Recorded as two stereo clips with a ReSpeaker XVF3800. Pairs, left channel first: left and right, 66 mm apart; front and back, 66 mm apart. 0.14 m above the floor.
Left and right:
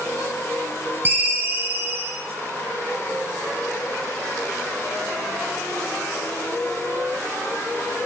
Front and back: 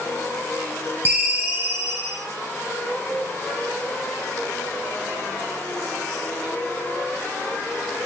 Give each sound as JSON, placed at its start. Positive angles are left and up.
{"t": 1.1, "sound": "a ringtone", "azimuth_deg": -130, "distance_m": 1.5}